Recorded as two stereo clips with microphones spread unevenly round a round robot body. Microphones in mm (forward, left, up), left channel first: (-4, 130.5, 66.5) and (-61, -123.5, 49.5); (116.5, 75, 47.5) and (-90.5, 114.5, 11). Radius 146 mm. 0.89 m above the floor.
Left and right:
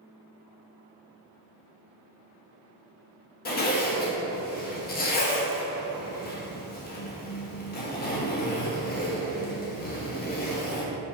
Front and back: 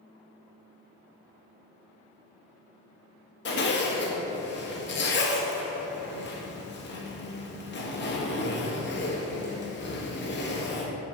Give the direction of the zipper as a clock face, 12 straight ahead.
11 o'clock.